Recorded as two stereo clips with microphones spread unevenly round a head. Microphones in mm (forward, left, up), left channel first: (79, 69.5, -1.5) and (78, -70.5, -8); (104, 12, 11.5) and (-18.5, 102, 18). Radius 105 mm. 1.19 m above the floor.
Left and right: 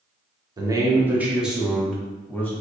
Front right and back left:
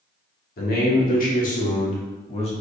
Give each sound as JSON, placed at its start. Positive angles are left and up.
{"t": 0.6, "sound": "a man speaking", "azimuth_deg": -30, "distance_m": 1.2}